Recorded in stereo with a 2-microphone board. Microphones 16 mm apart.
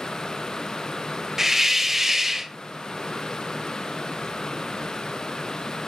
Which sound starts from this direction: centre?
A hiss, at 1.4 s.